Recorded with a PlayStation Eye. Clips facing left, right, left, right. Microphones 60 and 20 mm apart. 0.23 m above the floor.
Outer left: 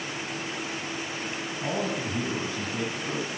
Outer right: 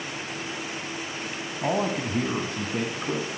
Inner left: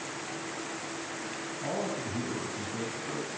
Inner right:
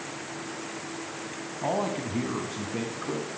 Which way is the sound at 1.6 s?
45° right (ahead or behind).